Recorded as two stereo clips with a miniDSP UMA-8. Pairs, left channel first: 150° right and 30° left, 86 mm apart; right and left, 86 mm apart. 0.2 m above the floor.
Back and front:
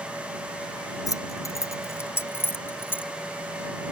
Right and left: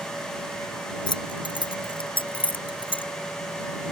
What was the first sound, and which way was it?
Keys jangling, 105° right.